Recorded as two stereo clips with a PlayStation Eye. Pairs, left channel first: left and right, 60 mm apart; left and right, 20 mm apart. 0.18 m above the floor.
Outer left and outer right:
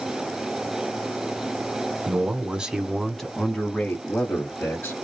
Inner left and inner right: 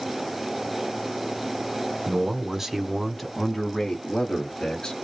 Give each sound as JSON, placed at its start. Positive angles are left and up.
{"t": 2.1, "sound": "a man speaking", "side_deg": -30, "distance_m": 1.1}